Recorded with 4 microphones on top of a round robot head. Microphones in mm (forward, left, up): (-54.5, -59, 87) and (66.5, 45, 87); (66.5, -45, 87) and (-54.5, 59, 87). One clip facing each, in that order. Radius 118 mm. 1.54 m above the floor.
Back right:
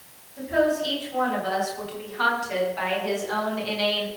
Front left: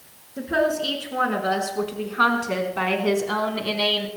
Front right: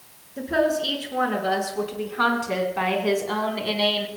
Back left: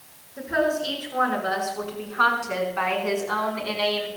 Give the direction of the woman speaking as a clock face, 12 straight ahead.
11 o'clock.